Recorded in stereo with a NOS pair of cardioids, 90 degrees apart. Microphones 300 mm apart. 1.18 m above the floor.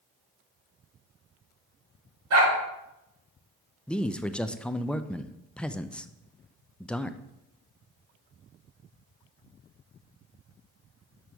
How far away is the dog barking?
About 4.5 m.